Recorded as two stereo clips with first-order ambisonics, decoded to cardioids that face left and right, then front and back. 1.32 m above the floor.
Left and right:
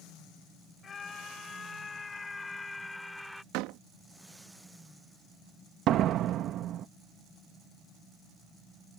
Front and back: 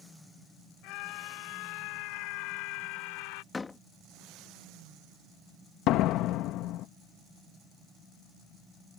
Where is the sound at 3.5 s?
75° right.